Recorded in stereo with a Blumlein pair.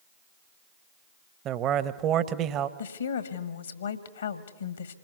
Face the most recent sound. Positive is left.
turn(degrees=70)